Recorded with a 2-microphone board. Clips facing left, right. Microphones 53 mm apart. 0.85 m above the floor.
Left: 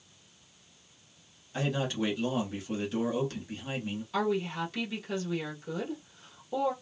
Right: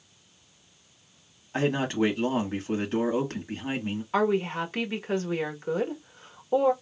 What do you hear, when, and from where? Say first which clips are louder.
1.5 s a man speaking: right 6 dB; 40° right (ahead or behind), 1.0 m
4.1 s a woman speaking: right 5 dB; 40° right (ahead or behind), 1.0 m